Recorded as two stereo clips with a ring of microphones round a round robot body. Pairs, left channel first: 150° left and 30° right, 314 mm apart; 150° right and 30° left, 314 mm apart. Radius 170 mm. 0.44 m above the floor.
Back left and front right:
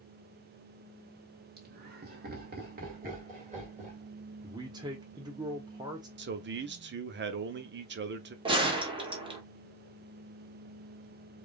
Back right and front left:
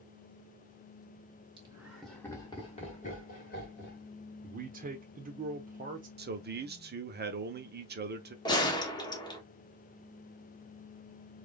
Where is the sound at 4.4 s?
30° left, 0.9 m.